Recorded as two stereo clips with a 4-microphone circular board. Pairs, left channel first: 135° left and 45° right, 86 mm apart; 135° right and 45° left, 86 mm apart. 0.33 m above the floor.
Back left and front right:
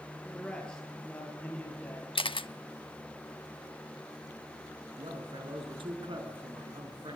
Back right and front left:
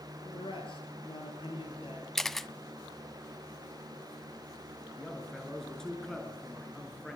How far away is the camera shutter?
About 0.5 m.